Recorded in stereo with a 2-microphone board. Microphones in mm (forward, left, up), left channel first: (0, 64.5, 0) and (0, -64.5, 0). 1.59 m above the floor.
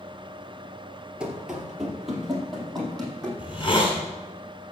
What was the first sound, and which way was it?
Running footsteps, 5° right (ahead or behind).